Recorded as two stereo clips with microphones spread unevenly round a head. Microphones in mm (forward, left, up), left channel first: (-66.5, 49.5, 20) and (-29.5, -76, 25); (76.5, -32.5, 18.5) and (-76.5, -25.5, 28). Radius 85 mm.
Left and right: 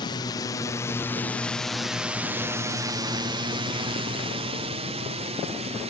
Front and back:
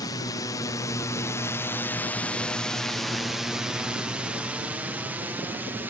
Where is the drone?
60° left; by 5.9 s 105° right.